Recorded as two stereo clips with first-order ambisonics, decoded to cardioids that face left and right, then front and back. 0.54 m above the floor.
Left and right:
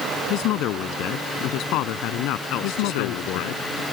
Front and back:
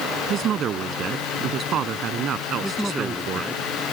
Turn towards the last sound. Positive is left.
turn(degrees=95)